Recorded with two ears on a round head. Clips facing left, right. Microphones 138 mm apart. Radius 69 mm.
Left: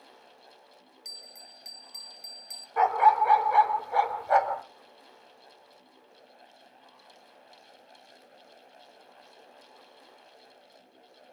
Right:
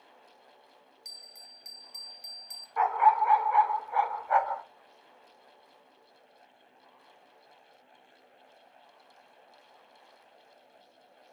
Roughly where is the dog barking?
Left.